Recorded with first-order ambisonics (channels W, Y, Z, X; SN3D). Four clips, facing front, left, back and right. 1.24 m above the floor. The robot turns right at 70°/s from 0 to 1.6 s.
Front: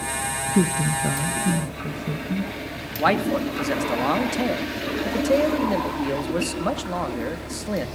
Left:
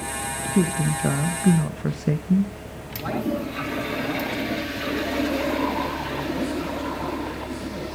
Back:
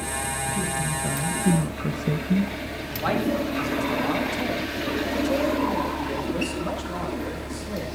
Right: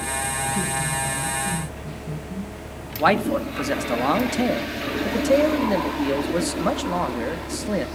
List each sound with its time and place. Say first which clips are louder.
0.6 s a man speaking: left 2 dB, front 5 dB; 35° left, 1.0 m; by 2.5 s 110° left, 1.0 m
3.0 s a man speaking: right 7 dB, front 4 dB; 60° right, 1.8 m